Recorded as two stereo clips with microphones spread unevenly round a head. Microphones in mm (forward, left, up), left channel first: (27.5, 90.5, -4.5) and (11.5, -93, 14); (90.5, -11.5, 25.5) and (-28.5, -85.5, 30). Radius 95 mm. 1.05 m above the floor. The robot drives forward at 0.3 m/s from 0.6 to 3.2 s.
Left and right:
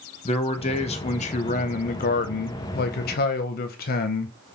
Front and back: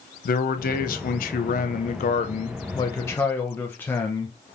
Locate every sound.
0.2 s a man speaking: 30° left, 0.8 m; by 4.4 s 105° left, 0.5 m